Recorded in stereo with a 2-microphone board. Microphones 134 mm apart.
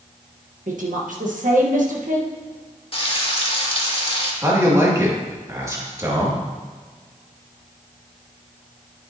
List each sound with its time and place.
0.7 s a woman speaking: 75° right (ahead or behind), 1.4 m
2.9 s frying: 45° left (ahead or behind), 1.5 m
4.4 s a man speaking: 25° right (ahead or behind), 2.5 m